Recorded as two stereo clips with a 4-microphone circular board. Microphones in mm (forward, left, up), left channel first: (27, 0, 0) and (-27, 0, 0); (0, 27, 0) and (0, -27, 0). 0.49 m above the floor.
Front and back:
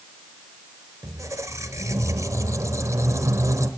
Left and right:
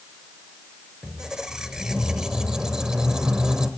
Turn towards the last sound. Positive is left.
turn(degrees=-165)